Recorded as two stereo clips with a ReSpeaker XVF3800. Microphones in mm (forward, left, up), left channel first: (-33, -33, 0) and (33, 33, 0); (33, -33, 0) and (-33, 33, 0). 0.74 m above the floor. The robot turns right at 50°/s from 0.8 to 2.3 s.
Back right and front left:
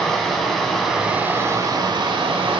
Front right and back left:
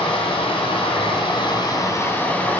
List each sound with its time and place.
0.0 s running water: 50° right, 1.6 m; by 2.6 s 25° left, 1.6 m